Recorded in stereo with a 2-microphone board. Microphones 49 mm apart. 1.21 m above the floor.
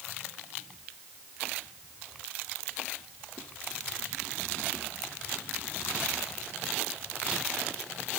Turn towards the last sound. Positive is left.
No sound to turn to.